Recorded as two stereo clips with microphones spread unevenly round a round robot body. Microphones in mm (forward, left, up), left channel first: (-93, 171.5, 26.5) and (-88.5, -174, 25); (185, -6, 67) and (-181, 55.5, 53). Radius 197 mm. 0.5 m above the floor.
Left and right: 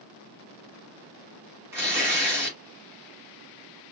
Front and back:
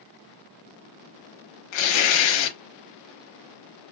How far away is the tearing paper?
About 1.2 m.